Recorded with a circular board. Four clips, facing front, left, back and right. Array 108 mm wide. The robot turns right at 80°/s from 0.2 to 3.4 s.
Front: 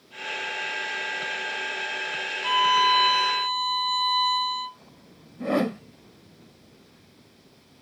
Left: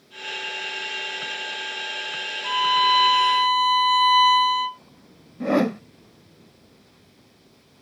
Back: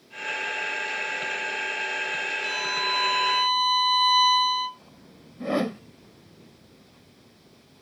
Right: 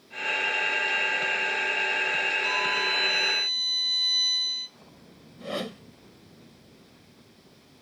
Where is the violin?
25° left; by 4.8 s 100° left.